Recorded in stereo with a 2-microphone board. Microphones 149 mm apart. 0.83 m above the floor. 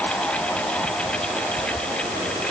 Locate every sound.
Only background noise.